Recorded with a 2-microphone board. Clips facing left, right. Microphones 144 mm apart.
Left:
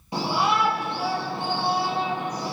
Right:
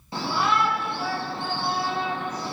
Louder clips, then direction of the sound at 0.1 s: Left 1 dB; 15° left (ahead or behind).